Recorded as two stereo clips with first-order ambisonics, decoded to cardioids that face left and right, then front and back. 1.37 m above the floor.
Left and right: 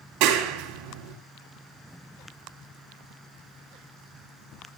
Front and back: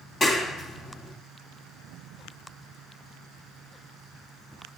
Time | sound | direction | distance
0.2 | a clap | 70° right | 3 m